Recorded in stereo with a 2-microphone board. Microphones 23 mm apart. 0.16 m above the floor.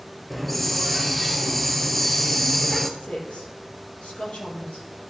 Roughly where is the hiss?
Centre.